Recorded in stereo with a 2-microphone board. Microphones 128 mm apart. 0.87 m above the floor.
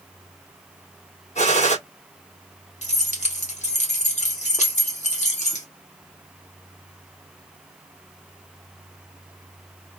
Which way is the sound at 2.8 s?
65° left (ahead or behind).